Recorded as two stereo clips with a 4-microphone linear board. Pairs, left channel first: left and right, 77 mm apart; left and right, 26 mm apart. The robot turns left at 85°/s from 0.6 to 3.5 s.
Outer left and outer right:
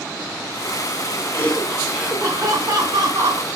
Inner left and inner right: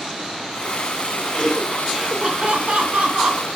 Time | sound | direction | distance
1.3 | laughter | 40° left | 2.5 m